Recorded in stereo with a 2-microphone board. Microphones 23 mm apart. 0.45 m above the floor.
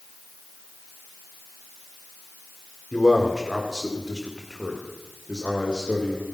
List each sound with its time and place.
2.9 s a man speaking: 20° left (ahead or behind), 1.5 m; by 6.2 s 45° right (ahead or behind), 2 m